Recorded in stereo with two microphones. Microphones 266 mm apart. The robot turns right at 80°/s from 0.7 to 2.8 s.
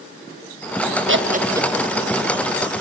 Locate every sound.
1.1 s laughter: 50° right (ahead or behind), 1.4 m; by 1.9 s 15° left (ahead or behind), 1.4 m